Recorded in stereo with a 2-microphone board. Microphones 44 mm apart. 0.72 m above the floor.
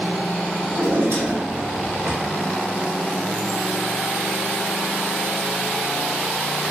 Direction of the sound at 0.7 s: 60° right (ahead or behind).